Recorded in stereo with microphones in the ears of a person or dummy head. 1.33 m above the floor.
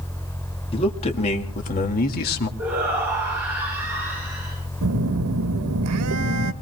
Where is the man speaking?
25° left (ahead or behind), 2.5 m; by 2.5 s 50° left (ahead or behind), 2 m.